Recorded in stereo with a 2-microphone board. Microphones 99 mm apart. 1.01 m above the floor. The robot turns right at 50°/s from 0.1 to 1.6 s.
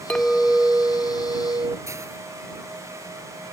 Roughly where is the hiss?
Right.